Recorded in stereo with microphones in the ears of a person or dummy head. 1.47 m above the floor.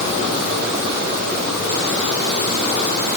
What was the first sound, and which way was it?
Only background noise.